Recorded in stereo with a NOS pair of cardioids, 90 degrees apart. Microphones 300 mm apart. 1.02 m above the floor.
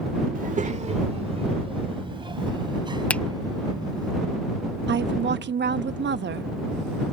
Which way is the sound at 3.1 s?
5° left.